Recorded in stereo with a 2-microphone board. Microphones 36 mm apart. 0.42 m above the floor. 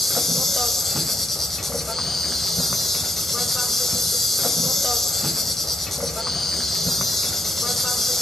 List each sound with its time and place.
0.0 s an insect: 5° left (ahead or behind), 2.5 m